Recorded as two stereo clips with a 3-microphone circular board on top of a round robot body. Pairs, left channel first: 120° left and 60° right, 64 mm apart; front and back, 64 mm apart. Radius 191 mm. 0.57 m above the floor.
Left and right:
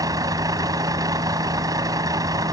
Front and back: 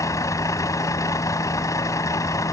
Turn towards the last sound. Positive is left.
turn(degrees=-35)